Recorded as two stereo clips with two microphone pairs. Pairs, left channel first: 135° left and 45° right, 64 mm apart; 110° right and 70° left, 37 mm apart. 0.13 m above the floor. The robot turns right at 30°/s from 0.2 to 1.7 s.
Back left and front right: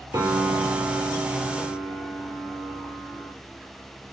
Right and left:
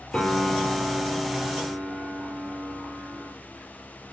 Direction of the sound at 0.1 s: 45° right.